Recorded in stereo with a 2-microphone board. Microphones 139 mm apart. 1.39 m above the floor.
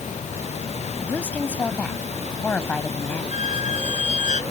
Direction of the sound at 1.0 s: 10° left (ahead or behind).